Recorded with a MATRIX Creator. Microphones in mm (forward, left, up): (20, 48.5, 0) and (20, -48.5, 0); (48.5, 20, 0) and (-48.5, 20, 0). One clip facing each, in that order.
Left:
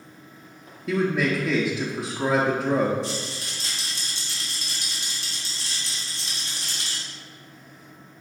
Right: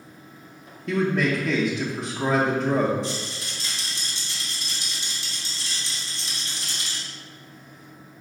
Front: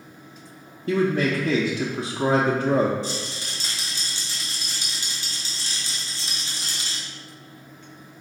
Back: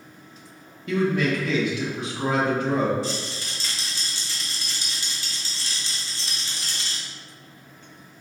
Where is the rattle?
70° left, 1.5 m.